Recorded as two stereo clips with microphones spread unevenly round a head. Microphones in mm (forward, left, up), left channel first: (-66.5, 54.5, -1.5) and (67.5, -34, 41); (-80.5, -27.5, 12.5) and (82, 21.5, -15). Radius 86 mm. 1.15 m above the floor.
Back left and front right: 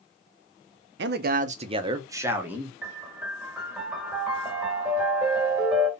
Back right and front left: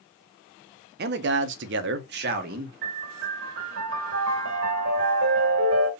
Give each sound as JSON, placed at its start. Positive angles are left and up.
{"t": 1.0, "sound": "a man speaking", "azimuth_deg": -10, "distance_m": 0.6}
{"t": 2.8, "sound": "a piano", "azimuth_deg": 40, "distance_m": 1.5}